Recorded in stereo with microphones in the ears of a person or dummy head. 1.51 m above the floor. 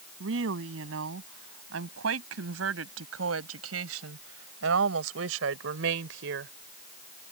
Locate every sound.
0.2 s a woman speaking: 80° right; by 6.5 s 65° right (ahead or behind)